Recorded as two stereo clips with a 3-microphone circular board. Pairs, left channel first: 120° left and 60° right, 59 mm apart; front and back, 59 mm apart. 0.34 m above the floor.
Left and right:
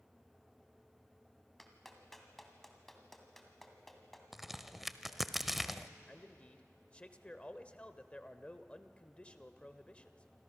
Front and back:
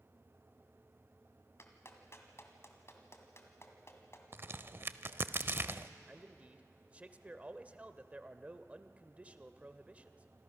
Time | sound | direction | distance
1.6 | a clap | 35° left | 2 m
4.3 | a crack | 145° right | 0.6 m
6.1 | a man speaking | 160° left | 1.0 m